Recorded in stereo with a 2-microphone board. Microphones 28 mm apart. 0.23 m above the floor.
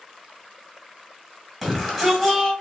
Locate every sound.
1.6 s a shout: centre (ahead or behind), 1.7 m